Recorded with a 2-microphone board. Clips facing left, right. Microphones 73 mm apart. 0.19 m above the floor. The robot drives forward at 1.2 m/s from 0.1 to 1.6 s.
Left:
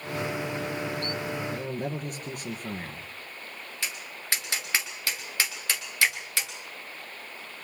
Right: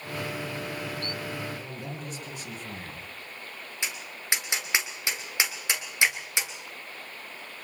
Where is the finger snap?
10° right (ahead or behind), 1.5 m.